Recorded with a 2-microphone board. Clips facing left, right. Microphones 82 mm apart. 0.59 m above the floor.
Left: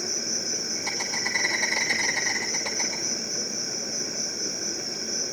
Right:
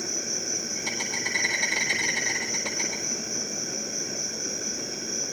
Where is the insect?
10° left (ahead or behind), 6 m.